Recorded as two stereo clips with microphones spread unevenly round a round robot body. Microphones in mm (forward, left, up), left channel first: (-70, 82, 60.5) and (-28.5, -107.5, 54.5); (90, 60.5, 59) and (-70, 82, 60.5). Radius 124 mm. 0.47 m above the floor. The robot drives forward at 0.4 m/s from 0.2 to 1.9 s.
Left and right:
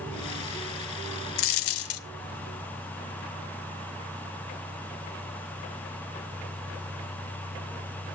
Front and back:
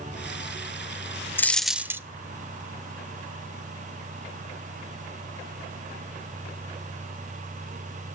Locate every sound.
1.4 s a dropped coin: 70° left, 0.6 m; by 2.0 s 95° left, 0.5 m